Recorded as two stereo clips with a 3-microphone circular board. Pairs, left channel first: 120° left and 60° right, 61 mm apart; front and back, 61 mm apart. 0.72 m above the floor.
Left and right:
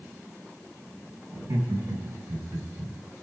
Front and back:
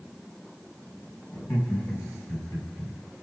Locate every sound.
1.3 s laughter: 60° right, 5 m; by 2.9 s 50° right, 6 m